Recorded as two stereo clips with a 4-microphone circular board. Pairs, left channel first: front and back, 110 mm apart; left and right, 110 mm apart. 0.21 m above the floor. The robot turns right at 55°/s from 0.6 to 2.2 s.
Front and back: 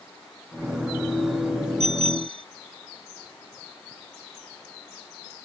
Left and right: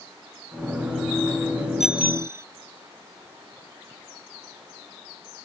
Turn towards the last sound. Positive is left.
turn(degrees=-155)